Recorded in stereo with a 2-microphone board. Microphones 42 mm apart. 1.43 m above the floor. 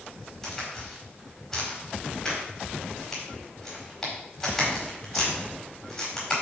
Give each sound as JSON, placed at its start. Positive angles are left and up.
{"t": 0.4, "sound": "a crack", "side_deg": 10, "distance_m": 4.0}